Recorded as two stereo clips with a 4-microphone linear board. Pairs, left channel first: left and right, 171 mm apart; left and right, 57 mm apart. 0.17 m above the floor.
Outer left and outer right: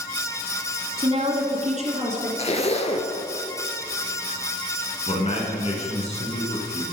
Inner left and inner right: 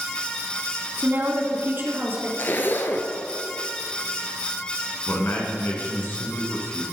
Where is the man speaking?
40° left (ahead or behind), 2 m.